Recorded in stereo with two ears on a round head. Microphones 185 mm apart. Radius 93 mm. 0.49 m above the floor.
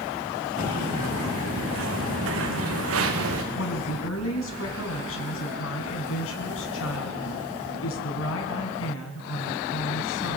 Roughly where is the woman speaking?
Left.